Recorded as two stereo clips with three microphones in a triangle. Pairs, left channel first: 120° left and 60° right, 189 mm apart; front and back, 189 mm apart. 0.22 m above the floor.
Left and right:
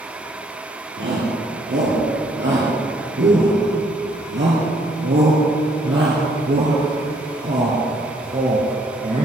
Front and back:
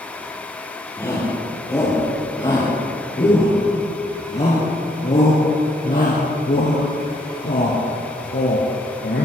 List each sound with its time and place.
1.0 s a shout: 75° right, 4.5 m; by 9.2 s 10° right, 3.5 m